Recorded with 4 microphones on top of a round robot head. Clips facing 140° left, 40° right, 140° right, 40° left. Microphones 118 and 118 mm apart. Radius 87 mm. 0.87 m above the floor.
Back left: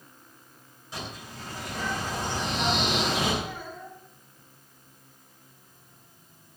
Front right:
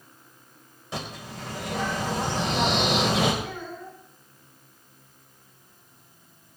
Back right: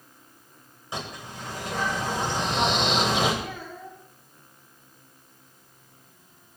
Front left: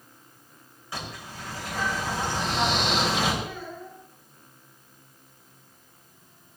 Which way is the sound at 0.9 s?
70° right.